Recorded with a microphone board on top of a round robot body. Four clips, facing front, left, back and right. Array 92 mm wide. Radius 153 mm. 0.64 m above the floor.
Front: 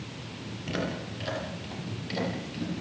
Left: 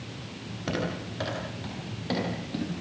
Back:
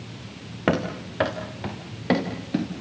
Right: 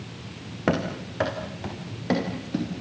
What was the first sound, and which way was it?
Running footsteps, 150° right.